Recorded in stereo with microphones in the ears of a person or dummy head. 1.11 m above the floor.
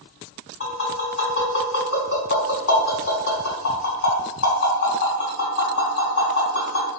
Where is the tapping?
65° left (ahead or behind), 1.9 m.